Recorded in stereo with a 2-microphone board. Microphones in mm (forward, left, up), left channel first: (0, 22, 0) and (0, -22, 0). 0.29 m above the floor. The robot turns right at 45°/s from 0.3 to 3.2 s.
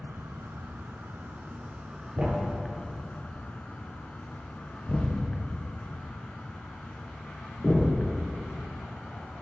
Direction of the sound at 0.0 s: 95° right.